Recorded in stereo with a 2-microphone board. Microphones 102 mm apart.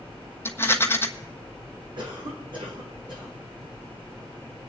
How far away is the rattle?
About 1.2 m.